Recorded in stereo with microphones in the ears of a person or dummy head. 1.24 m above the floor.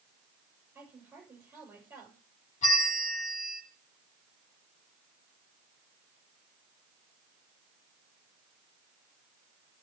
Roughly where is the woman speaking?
Centre.